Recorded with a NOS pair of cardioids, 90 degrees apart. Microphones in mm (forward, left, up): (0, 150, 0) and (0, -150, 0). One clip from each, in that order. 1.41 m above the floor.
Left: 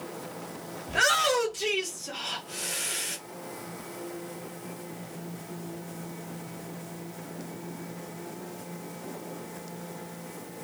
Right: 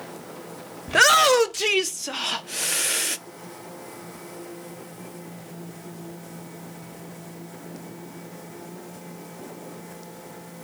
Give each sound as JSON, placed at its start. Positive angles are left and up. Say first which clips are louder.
{"t": 0.9, "sound": "a shout", "louder": "right 8 dB", "azimuth_deg": -50, "distance_m": 1.0}